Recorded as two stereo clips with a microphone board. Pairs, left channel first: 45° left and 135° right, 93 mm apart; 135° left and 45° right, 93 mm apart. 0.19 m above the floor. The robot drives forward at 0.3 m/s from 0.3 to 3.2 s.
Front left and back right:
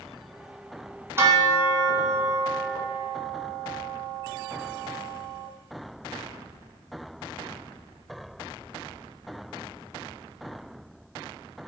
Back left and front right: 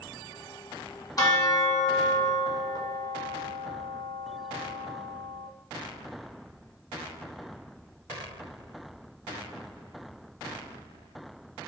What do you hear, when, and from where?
1.2 s a bell: 170° left, 1.3 m; by 5.5 s 175° left, 1.8 m